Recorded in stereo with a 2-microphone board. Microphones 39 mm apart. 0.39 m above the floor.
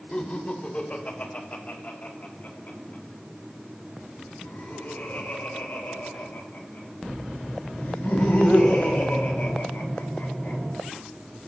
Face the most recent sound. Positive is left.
turn(degrees=70)  # may be behind; listen again after turning